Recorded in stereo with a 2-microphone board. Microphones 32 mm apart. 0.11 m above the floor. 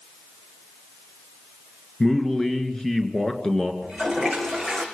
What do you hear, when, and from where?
2.0 s a man speaking: 20° left (ahead or behind), 1.9 m
3.8 s a toilet flushing: 15° left (ahead or behind), 4 m